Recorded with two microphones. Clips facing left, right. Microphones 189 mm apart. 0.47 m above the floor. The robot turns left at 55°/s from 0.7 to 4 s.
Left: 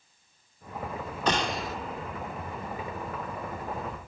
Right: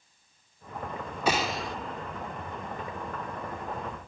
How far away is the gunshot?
About 1.4 m.